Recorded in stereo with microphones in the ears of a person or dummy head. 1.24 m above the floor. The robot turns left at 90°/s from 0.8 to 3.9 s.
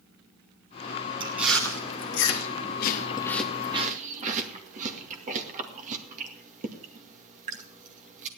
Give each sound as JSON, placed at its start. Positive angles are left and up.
{"t": 1.2, "sound": "chewing", "side_deg": -20, "distance_m": 2.0}